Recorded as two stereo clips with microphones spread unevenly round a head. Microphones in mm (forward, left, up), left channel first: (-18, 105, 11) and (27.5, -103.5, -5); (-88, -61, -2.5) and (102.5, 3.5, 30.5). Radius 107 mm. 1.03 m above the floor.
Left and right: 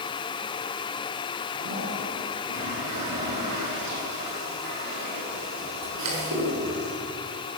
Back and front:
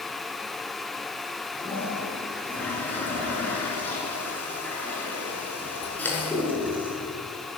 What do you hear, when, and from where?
1.6 s a toilet flushing: 80° right, 7 m